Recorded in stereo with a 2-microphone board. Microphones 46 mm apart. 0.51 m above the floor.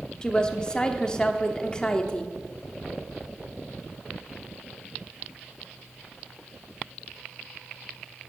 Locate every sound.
0.2 s a woman speaking: 20° left (ahead or behind), 1.0 m